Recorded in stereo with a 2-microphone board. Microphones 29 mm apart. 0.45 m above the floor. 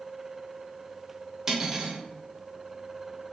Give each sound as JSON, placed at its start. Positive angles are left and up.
{"t": 1.5, "sound": "cutlery clinking", "side_deg": -10, "distance_m": 0.8}